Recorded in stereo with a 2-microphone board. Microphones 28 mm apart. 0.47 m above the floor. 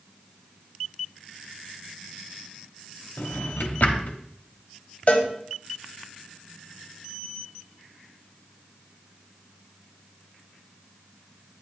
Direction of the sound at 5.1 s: 55° left (ahead or behind).